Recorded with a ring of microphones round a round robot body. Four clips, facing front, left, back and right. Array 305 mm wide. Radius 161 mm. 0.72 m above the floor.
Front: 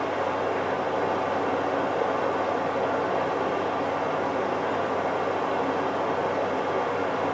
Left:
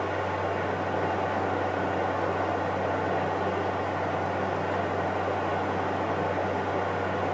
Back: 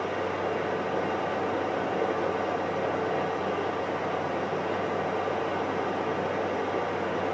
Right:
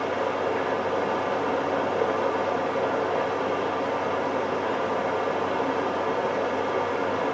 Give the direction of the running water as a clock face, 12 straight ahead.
2 o'clock.